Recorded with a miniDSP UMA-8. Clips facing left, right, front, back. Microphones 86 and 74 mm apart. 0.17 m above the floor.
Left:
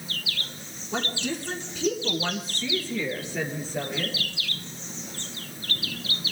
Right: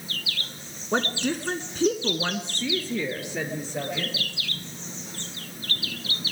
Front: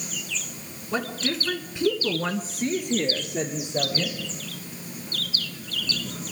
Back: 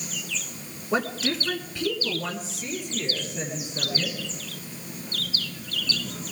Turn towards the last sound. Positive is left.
turn(degrees=-10)